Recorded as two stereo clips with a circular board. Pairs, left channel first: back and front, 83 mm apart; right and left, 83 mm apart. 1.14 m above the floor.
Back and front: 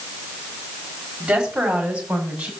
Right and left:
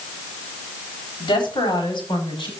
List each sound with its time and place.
1.2 s a woman speaking: 80° right, 6 m; by 2.5 s 75° right, 7 m